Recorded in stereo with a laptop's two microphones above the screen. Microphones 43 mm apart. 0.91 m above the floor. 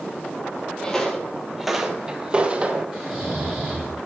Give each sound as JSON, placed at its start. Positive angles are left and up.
{"t": 0.8, "sound": "footsteps", "side_deg": 15, "distance_m": 1.0}
{"t": 2.9, "sound": "snoring", "side_deg": -5, "distance_m": 2.0}